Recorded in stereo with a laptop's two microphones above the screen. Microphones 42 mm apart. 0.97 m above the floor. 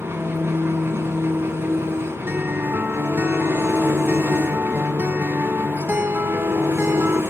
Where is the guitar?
60° right (ahead or behind), 1.7 m.